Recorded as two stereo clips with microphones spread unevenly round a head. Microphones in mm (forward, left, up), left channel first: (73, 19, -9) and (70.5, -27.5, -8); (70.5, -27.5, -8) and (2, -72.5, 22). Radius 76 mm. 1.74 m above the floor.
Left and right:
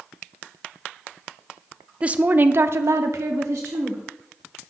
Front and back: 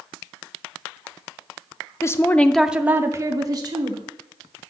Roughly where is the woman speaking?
Ahead right.